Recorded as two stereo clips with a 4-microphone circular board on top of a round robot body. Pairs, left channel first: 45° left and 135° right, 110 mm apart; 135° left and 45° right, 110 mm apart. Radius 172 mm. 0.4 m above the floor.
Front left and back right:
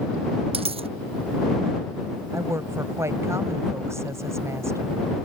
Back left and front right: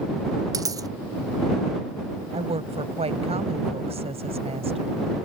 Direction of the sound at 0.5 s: 105° right.